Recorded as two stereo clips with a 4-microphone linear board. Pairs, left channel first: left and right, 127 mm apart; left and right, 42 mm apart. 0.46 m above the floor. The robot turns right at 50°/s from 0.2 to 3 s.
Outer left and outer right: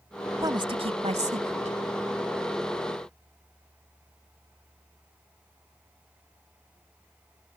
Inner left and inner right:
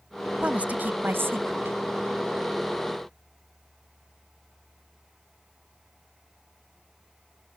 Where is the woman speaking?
150° right; by 1.8 s 80° right.